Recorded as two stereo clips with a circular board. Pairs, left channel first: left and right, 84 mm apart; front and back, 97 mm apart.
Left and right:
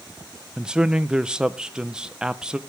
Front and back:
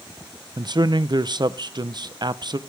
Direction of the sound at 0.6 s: 165° right.